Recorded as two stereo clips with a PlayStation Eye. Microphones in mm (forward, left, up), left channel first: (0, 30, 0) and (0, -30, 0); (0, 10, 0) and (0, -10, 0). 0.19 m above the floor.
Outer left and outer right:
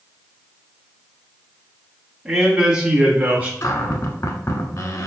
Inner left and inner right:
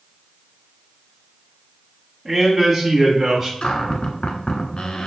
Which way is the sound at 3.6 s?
60° left (ahead or behind).